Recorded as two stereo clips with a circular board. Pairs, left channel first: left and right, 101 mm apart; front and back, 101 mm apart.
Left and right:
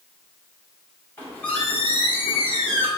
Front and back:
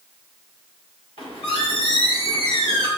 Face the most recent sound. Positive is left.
turn(degrees=20)